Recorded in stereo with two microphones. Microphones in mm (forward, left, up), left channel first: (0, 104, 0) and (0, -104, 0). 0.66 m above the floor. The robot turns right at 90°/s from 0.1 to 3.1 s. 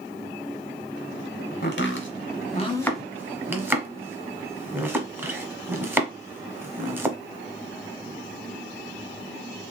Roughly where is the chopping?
Left.